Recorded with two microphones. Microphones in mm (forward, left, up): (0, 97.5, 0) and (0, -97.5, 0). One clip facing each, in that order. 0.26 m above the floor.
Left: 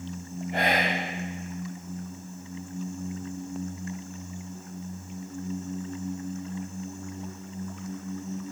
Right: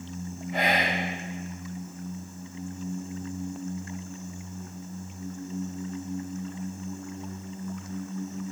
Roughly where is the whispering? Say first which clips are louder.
Left 1 dB; left.